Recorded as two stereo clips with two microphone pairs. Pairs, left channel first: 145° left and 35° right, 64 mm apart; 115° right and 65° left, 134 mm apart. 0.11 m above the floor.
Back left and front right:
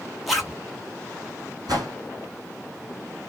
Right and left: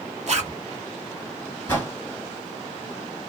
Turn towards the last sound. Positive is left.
turn(degrees=-35)